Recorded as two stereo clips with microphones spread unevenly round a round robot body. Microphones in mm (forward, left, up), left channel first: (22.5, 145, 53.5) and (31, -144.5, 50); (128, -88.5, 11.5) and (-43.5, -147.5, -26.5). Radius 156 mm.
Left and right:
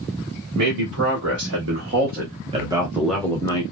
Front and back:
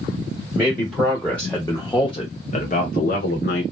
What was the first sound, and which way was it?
A man speaking, 85° right.